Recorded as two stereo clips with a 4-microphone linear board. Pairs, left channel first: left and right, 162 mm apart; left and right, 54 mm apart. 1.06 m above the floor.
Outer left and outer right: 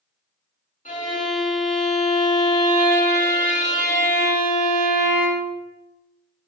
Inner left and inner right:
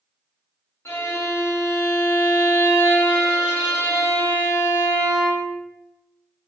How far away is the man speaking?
I don't hear a man speaking.